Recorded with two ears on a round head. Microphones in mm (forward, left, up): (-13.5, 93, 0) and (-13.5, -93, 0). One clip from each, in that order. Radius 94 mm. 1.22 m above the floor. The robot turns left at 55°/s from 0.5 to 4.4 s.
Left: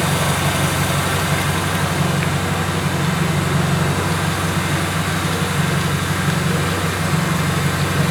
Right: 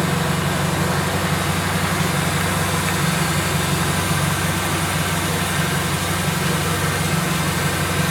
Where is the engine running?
60° left, 6 m; by 8.1 s 155° right, 6 m.